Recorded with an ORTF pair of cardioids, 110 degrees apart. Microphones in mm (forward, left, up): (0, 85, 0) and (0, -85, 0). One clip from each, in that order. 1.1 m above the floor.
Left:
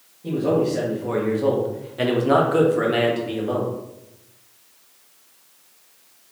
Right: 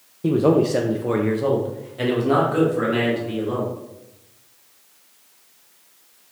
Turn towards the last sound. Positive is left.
turn(degrees=35)